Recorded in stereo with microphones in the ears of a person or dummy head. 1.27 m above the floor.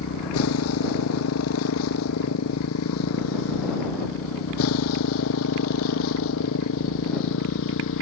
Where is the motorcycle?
85° left; by 8.0 s 75° left (ahead or behind).